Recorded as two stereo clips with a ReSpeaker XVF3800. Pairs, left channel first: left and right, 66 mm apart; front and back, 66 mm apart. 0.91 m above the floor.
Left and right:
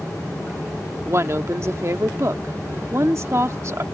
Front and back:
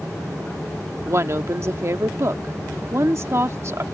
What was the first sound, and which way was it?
A woman speaking, 135° right.